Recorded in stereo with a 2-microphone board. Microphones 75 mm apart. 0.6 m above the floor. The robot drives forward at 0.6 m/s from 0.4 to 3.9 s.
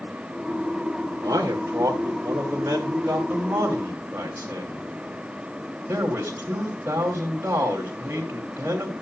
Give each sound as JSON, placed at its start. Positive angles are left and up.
{"t": 1.2, "sound": "a man speaking", "side_deg": -50, "distance_m": 1.8}